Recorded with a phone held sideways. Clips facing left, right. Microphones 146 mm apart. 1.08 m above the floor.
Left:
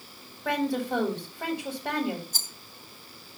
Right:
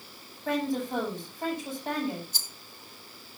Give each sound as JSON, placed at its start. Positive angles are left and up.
{"t": 0.5, "sound": "a woman speaking", "side_deg": 75, "distance_m": 7.5}
{"t": 2.3, "sound": "a rattle", "side_deg": 45, "distance_m": 2.0}